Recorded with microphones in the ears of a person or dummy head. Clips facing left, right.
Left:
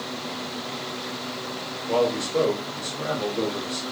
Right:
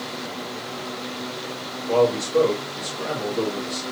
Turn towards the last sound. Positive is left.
turn(degrees=0)  # may be behind; listen again after turning